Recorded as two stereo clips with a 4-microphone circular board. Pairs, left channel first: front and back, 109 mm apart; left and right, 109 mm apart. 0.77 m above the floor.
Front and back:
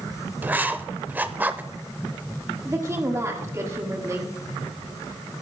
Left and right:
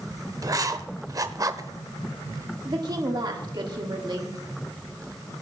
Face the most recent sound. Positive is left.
turn(degrees=-125)